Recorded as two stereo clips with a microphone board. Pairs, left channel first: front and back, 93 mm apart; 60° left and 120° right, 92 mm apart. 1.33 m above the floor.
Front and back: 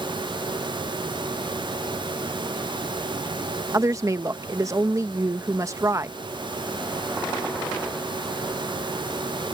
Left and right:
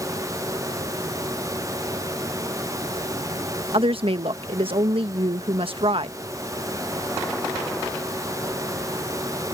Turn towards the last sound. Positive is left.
turn(degrees=-125)